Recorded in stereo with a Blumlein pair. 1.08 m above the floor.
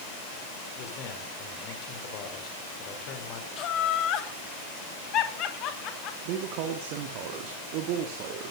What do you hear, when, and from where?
0.8 s a man speaking: 35° left, 4.5 m
3.6 s laughter: 35° left, 3 m
6.2 s a man speaking: 45° right, 2 m